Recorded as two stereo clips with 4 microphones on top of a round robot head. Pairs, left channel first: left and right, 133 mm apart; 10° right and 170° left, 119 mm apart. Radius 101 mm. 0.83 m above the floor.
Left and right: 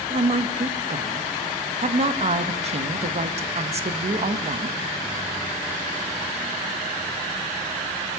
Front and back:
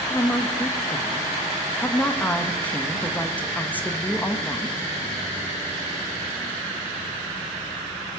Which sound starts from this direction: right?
A woman speaking, at 0.1 s.